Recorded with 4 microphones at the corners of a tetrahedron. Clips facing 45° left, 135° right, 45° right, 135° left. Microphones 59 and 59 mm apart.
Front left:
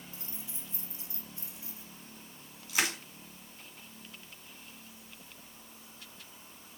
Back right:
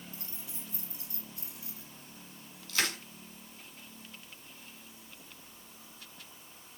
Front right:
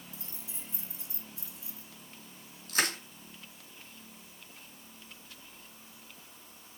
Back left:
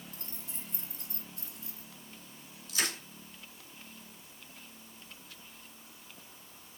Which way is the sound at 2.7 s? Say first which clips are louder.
Front left 1 dB, front right 4 dB; 25° right.